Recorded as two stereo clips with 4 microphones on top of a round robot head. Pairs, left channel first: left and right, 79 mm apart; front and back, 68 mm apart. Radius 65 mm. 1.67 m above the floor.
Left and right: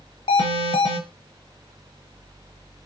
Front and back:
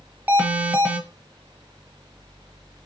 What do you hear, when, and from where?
0.3 s an alarm: 120° left, 0.8 m